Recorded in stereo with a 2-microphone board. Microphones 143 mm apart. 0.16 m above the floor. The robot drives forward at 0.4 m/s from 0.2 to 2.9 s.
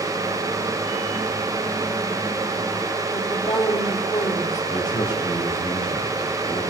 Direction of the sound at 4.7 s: 30° left (ahead or behind).